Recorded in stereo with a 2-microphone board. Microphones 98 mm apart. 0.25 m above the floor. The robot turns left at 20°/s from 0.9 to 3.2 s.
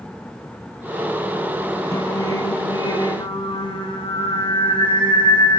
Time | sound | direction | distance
1.9 | singing | 35° left (ahead or behind) | 7 m